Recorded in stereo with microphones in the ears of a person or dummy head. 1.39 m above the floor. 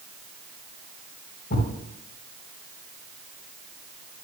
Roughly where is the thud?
Left.